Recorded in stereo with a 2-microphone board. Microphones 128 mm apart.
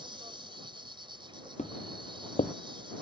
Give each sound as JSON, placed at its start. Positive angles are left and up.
{"t": 0.0, "sound": "an insect", "side_deg": -40}
{"t": 1.6, "sound": "footsteps", "side_deg": 65}